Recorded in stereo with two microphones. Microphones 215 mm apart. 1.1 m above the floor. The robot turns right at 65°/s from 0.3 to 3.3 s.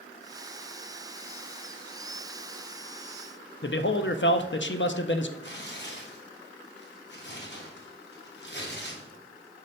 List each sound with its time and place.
3.6 s a man speaking: 60° left (ahead or behind), 0.5 m
5.4 s tearing paper: 55° left (ahead or behind), 1.2 m